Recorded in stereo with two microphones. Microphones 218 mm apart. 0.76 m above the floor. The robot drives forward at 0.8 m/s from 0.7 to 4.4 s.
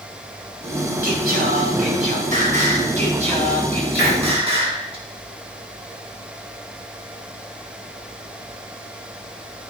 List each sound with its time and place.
1.0 s singing: 50° right (ahead or behind), 3.5 m; by 5.0 s 30° right (ahead or behind), 5.5 m
4.0 s a hiss: 55° right (ahead or behind), 1.8 m